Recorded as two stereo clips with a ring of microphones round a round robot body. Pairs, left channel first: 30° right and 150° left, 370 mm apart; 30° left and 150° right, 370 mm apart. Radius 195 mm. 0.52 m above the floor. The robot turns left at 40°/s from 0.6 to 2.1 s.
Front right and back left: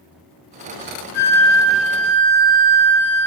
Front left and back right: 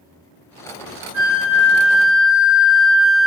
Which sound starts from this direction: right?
A flute, at 1.1 s.